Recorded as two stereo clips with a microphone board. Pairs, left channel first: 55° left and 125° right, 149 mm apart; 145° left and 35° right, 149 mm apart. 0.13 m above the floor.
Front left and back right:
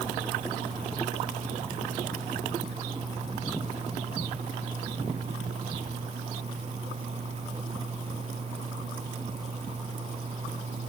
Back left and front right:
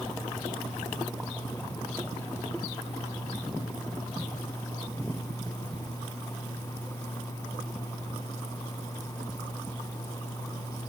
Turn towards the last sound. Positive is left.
No sound to turn to.